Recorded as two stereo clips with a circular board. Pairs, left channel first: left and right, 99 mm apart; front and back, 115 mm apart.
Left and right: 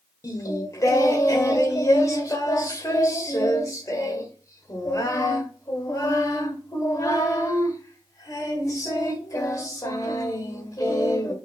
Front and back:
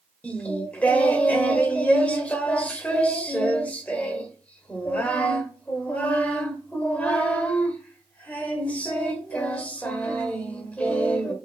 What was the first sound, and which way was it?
Singing, 70° left.